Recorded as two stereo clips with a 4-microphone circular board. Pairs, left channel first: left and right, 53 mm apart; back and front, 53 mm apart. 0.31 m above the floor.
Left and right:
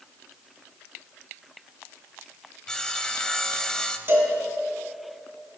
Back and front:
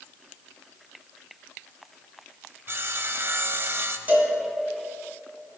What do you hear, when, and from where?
2.7 s sawing: 20° left, 0.6 m
4.1 s a cowbell: 50° right, 1.8 m